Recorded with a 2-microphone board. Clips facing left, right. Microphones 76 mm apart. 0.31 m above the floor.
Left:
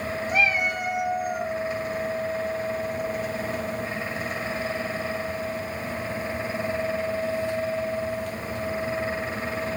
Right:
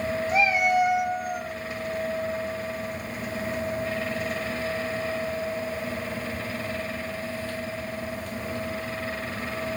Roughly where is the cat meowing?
Right.